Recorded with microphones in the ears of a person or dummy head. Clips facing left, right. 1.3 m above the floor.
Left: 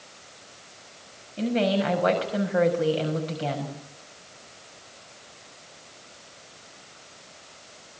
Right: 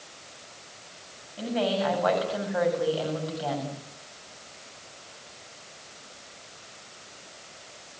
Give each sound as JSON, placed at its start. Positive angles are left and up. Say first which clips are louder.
{"t": 1.4, "sound": "a woman speaking", "louder": "left 3 dB", "side_deg": 30, "distance_m": 7.0}